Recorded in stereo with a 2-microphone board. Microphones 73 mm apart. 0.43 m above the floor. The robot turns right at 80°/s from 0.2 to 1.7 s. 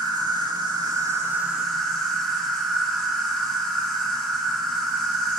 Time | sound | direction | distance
0.0 | an insect | 115° right | 0.8 m